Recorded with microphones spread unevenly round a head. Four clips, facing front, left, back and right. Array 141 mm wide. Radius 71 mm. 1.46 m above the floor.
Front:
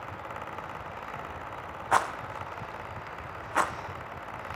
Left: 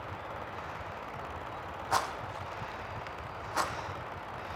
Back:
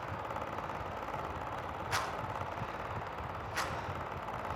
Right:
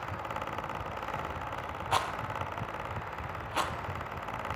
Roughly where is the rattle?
Ahead.